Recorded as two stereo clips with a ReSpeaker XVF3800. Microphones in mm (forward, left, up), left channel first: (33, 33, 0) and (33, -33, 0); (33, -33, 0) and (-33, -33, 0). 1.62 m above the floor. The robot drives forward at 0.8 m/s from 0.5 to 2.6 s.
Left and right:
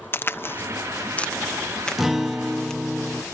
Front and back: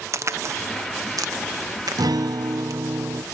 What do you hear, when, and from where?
0.1 s a crack: 140° left; by 2.8 s 170° left
2.0 s a guitar: 175° right; by 3.2 s straight behind